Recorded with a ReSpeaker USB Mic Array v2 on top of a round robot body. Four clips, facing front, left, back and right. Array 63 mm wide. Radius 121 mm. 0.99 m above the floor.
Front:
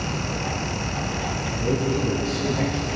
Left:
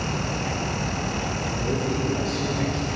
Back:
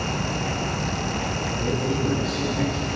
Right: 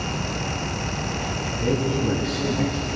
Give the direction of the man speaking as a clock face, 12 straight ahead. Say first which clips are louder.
Right 4 dB, front 2 dB; 3 o'clock.